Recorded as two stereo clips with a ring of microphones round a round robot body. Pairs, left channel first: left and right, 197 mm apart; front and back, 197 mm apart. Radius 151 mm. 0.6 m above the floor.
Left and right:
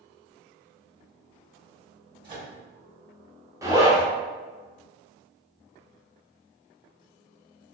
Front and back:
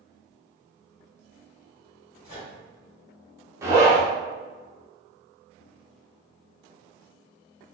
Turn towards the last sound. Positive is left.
turn(degrees=-130)